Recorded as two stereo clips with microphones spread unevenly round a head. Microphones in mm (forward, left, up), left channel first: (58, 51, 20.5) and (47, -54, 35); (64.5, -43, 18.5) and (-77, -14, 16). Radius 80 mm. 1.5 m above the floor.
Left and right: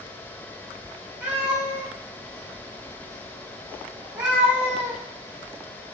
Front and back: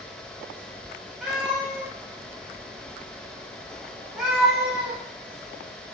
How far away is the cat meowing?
About 0.6 m.